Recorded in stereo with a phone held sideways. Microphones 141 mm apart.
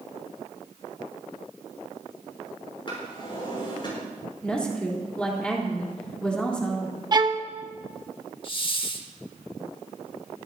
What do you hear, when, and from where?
2.9 s a drawer: 35° left (ahead or behind), 7.5 m
4.4 s a woman speaking: 5° left (ahead or behind), 3.5 m
7.1 s a violin: 30° right (ahead or behind), 0.8 m
8.4 s a hiss: 40° left (ahead or behind), 0.9 m